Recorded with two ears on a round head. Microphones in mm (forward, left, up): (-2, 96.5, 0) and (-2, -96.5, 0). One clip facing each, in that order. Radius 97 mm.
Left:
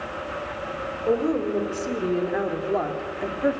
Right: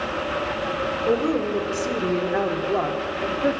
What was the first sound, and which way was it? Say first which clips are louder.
A woman speaking: even; centre (ahead or behind).